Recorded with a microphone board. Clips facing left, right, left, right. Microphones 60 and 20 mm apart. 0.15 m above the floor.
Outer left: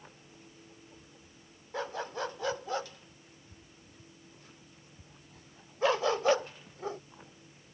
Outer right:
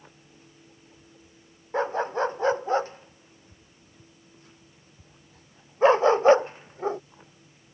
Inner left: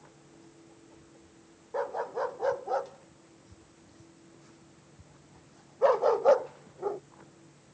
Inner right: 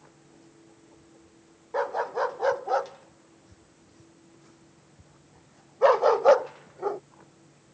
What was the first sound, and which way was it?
A dog barking, 35° right (ahead or behind).